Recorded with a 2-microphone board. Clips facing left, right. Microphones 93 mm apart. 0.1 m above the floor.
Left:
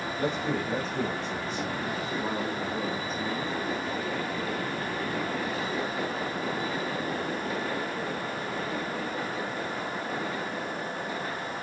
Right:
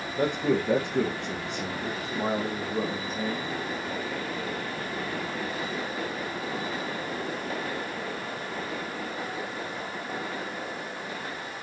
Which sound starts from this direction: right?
A man speaking, at 0.2 s.